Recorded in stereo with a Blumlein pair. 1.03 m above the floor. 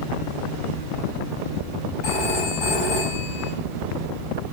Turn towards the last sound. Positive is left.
turn(degrees=45)